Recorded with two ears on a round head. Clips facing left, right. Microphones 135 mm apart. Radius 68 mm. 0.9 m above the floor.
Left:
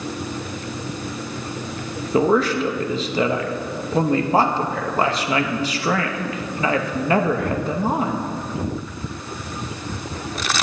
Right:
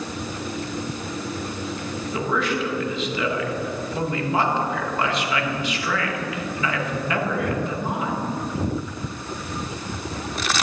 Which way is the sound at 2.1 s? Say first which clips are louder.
Left 8 dB; 30° left (ahead or behind).